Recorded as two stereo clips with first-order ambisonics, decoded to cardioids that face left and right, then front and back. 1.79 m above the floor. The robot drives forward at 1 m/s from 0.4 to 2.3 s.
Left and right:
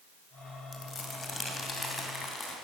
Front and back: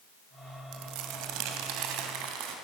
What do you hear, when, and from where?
0.7 s crumpling: 165° left, 2.5 m; by 2.5 s 170° left, 4 m